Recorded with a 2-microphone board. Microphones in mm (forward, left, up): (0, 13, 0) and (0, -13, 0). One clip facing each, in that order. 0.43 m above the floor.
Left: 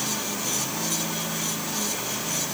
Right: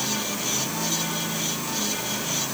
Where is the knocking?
I don't hear knocking.